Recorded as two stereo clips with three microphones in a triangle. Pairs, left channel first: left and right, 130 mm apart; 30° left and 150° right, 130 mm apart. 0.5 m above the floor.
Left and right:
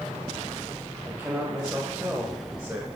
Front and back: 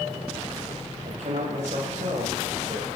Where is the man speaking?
175° right, 2.5 m.